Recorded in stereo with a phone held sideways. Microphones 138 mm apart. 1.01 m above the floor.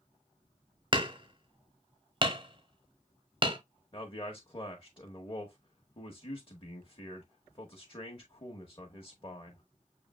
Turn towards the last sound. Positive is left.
turn(degrees=35)  # may be behind; listen again after turning